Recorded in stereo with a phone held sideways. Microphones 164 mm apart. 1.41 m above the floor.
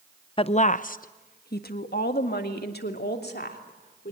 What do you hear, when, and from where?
0.4 s a woman speaking: 30° left (ahead or behind), 0.5 m; by 4.1 s 70° left (ahead or behind), 3.5 m